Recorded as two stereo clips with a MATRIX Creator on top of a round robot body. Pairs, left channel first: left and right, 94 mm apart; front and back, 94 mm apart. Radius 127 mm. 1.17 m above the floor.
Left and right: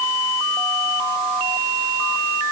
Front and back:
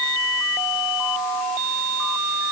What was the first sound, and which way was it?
Only background noise.